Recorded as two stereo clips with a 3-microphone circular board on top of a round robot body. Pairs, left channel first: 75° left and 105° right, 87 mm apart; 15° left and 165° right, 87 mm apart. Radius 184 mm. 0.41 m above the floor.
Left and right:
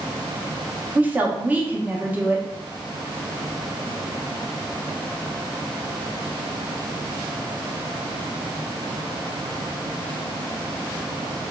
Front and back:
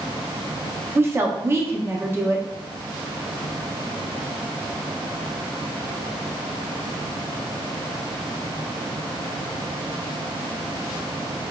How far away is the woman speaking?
About 0.8 m.